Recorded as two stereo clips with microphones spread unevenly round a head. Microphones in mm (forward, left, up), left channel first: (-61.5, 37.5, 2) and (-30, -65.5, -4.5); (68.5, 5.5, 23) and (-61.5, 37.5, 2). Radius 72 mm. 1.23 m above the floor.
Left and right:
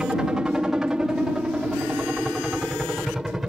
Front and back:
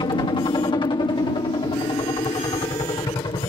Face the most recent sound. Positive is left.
turn(degrees=10)